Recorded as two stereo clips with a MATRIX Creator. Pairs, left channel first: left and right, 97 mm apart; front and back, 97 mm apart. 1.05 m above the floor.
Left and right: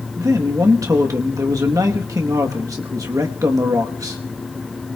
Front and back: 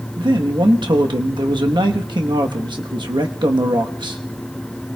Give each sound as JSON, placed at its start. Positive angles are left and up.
{"t": 0.2, "sound": "a man speaking", "azimuth_deg": -145, "distance_m": 1.1}